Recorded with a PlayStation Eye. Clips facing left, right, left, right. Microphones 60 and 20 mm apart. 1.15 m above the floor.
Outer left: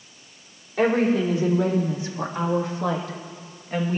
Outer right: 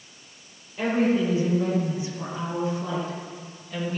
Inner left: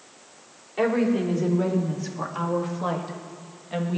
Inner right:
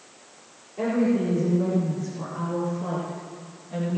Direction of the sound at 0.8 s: 80° left.